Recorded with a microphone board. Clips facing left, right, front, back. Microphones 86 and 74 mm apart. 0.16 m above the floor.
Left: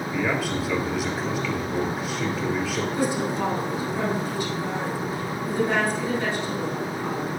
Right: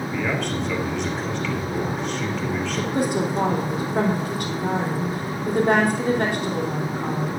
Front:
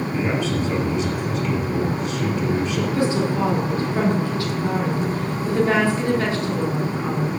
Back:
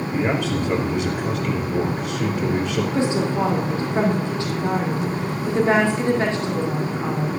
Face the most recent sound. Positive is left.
turn(degrees=-115)